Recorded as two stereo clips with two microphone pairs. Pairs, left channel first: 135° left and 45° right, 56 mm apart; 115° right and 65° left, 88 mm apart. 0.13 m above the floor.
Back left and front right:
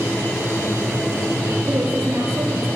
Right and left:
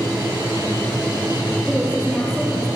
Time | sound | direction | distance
1.7 | a woman speaking | 15° right | 3 m